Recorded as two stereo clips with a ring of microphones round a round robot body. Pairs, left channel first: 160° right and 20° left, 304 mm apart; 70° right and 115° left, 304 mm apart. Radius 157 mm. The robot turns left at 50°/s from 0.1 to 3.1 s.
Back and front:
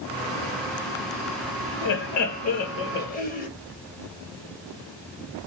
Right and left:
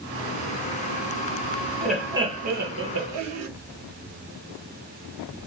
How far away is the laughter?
About 1.0 m.